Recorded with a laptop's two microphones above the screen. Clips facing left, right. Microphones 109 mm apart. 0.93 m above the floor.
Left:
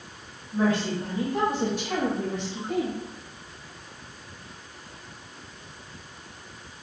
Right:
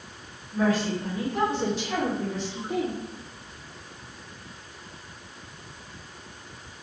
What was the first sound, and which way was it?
A woman speaking, 20° left (ahead or behind).